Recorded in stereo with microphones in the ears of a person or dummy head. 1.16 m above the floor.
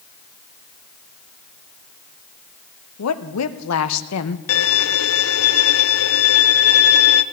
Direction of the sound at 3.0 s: 80° left.